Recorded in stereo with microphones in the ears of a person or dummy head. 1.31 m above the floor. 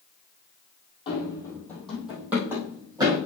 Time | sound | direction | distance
1.1 | running footsteps | 25° left (ahead or behind) | 2.5 m